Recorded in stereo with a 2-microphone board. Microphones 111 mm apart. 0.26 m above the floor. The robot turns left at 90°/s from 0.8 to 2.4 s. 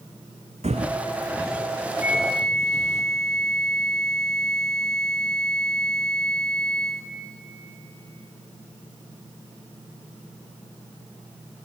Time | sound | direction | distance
0.6 | footsteps | 75° right (ahead or behind) | 0.8 m
2.0 | a flute | 155° right | 1.8 m